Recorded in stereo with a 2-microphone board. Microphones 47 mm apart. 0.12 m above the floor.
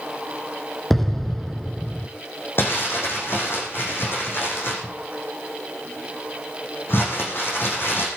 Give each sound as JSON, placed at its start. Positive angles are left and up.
{"t": 0.9, "sound": "an explosion", "side_deg": 5, "distance_m": 0.9}
{"t": 2.6, "sound": "crumpling", "side_deg": 55, "distance_m": 6.5}